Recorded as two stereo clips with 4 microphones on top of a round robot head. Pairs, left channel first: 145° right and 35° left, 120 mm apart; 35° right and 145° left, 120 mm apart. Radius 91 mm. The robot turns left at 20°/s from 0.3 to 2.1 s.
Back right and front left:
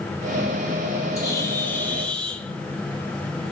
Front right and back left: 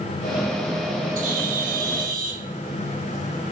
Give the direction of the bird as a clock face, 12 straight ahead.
7 o'clock.